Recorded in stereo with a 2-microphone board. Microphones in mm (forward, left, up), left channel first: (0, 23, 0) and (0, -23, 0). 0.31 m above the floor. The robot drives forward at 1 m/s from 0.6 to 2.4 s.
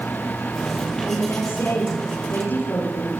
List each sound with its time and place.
1.1 s a woman speaking: 80° left, 9.5 m; by 3.1 s 75° left (ahead or behind), 9.5 m